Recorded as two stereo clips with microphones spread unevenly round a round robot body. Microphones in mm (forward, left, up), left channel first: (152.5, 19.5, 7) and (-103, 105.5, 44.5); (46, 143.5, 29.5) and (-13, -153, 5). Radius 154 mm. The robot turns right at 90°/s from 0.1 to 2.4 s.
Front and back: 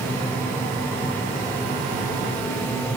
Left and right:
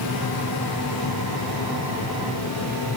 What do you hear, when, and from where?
Only background noise.